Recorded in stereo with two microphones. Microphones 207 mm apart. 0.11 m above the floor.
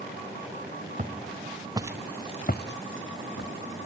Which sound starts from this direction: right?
Footsteps, at 1.0 s.